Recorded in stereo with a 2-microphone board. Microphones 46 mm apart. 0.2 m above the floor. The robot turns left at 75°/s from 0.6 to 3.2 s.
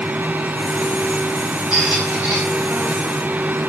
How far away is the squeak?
About 1.2 m.